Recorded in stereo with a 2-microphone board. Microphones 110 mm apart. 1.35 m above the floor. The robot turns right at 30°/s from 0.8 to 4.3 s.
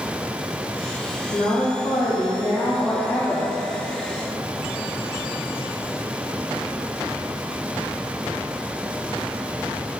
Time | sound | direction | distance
1.3 | a woman speaking | 100° left | 0.8 m